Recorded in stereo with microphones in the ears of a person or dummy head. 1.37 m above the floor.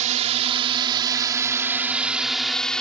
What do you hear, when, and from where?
0.0 s a drone: 40° right (ahead or behind); by 2.8 s 5° left (ahead or behind)